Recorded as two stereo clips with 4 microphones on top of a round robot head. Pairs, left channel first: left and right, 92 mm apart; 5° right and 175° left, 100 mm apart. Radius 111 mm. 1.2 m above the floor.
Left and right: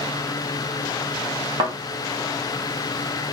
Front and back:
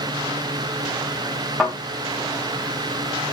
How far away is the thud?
About 0.7 m.